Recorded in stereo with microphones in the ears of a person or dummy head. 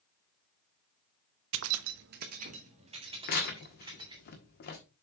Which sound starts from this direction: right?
Keys jangling, at 1.5 s.